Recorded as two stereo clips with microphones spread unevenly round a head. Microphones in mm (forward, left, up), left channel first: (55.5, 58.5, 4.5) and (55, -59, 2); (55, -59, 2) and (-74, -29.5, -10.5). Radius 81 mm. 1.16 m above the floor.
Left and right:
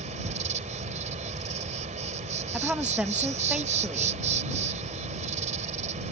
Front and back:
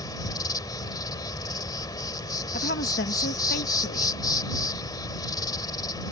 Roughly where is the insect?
Right.